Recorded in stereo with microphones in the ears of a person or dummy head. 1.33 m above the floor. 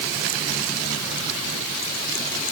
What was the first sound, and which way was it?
Only background noise.